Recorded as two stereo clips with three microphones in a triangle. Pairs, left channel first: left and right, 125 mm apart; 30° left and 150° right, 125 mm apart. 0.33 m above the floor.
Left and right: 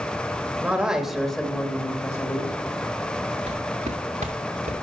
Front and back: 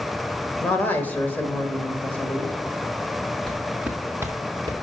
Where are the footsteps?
55° right, 1.7 m; by 4.7 s 95° right, 2.0 m.